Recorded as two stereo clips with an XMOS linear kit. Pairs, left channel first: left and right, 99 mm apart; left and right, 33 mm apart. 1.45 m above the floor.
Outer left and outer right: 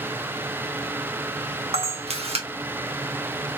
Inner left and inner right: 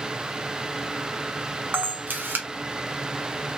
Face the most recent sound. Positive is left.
turn(degrees=-80)